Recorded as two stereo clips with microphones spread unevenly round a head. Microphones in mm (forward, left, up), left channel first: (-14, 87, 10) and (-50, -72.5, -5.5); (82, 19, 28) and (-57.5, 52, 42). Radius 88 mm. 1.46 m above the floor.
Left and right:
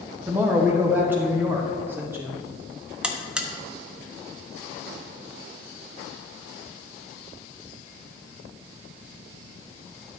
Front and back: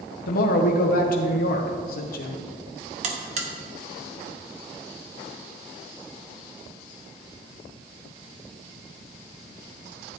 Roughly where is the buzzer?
Behind.